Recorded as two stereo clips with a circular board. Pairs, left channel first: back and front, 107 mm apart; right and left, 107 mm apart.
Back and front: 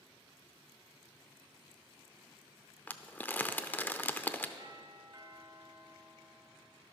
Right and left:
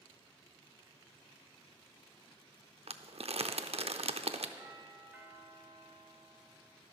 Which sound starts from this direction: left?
Crumpling, at 2.9 s.